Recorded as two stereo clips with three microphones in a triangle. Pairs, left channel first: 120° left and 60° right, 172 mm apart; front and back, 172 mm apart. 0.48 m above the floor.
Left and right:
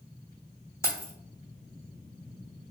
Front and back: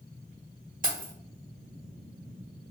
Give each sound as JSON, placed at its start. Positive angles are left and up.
{"t": 0.8, "sound": "keys jangling", "azimuth_deg": -170, "distance_m": 1.0}